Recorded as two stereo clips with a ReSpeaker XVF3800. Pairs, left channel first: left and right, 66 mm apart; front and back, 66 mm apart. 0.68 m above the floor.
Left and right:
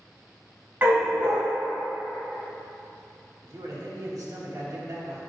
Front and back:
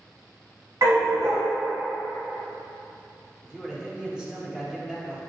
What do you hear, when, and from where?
0.8 s a dog barking: 150° right, 1.7 m
3.4 s a man speaking: 105° right, 1.5 m